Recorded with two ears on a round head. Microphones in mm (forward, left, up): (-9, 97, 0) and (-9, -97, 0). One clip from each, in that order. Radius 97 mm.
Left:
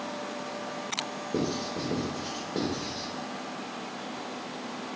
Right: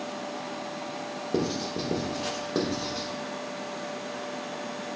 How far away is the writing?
About 0.8 m.